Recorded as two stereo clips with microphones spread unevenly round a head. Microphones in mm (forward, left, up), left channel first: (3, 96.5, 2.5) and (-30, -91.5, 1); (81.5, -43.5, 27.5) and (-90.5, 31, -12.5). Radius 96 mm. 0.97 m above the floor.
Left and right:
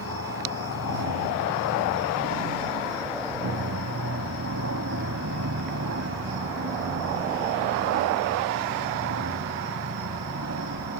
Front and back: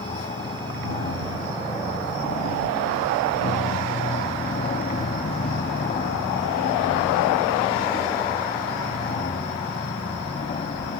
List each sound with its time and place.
0.0 s an aircraft: 80° right